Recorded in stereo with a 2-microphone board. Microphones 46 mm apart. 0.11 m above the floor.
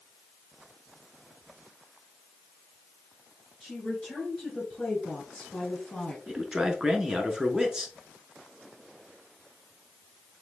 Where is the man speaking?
15° right (ahead or behind), 1.1 m.